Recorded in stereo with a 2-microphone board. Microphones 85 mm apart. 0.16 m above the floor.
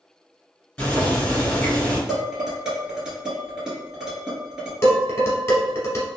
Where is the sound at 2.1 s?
10° right (ahead or behind), 1.6 m.